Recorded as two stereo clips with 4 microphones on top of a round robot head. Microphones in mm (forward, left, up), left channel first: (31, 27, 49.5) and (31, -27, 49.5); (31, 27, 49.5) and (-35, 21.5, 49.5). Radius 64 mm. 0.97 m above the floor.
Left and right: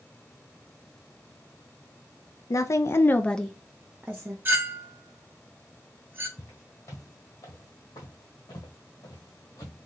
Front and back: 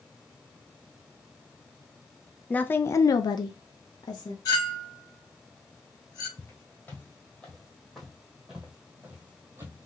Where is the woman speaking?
75° left, 0.6 m; by 4.3 s 30° right, 0.8 m.